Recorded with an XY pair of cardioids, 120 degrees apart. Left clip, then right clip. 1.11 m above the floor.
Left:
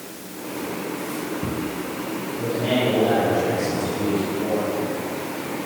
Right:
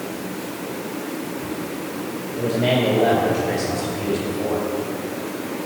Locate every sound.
2.4 s a man speaking: 55° right, 2 m; by 4.7 s 75° right, 4.5 m